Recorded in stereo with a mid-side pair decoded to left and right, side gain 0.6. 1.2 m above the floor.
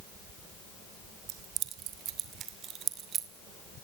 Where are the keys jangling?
70° right, 2.0 m; by 3.3 s 45° right, 3 m.